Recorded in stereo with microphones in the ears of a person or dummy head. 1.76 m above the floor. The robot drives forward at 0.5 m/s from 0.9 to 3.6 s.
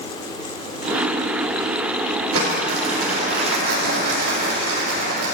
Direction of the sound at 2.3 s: 75° right (ahead or behind).